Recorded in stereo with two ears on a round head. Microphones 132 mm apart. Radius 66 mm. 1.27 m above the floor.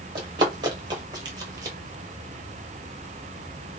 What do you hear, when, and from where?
0.1 s running footsteps: 30° right (ahead or behind), 1.6 m; by 1.8 s 25° right (ahead or behind), 1.4 m